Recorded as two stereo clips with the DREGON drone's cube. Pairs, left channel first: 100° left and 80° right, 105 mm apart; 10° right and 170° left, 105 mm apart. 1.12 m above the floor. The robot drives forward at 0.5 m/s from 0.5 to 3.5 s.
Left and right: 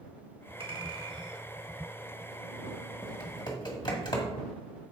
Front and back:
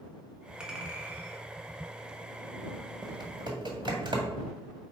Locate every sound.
0.6 s a clink: 105° right, 1.4 m; by 1.4 s 125° right, 1.5 m
3.0 s typing on a keyboard: 130° left, 1.5 m; by 4.3 s 135° left, 1.7 m